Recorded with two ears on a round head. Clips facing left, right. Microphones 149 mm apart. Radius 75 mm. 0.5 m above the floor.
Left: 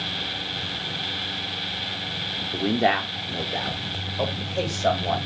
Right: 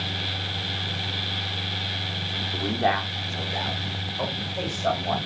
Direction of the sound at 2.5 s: 25° left (ahead or behind).